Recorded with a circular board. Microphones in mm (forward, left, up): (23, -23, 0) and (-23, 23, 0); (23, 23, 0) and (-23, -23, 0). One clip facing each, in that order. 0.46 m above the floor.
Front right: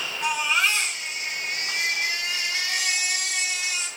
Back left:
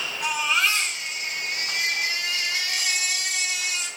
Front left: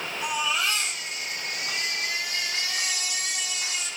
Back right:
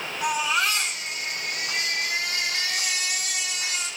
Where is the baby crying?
140° right, 3.5 m.